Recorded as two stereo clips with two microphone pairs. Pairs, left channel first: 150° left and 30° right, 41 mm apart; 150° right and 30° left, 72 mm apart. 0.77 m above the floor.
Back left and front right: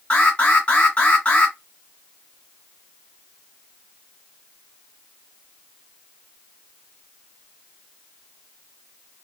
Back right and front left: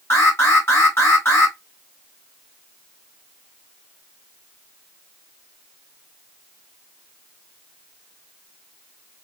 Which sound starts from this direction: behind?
An alarm, at 0.1 s.